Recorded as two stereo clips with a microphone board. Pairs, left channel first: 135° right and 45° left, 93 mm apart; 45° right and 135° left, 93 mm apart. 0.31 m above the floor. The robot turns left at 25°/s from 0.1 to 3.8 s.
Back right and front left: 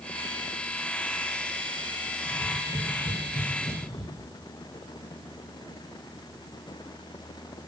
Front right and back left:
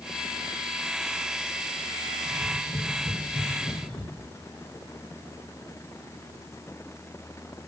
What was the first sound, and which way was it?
Tapping, 35° right.